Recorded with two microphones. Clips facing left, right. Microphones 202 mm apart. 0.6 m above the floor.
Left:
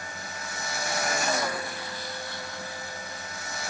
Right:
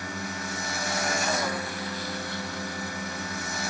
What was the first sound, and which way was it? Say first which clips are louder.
A drone: right 6 dB; 80° right.